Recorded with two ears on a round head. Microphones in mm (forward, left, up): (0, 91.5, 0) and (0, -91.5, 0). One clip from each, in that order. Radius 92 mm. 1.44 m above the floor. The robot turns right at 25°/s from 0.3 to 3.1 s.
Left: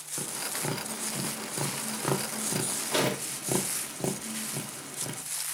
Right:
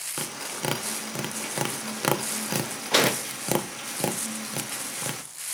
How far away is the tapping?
About 0.8 m.